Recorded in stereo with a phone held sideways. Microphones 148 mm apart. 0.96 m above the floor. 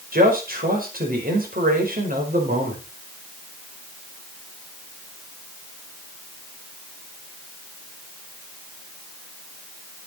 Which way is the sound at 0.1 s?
80° right.